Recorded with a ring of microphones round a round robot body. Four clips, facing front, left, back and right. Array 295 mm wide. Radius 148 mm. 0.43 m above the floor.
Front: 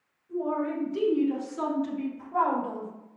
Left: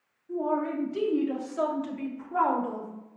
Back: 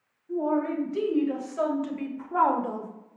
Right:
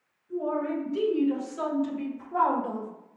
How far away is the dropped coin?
No dropped coin in this recording.